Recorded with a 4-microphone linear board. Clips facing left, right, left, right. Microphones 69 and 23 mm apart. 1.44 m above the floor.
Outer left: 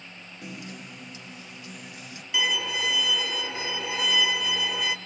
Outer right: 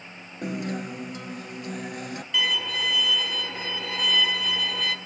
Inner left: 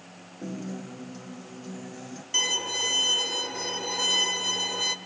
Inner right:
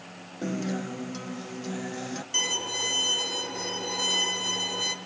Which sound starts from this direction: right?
A guitar, at 0.4 s.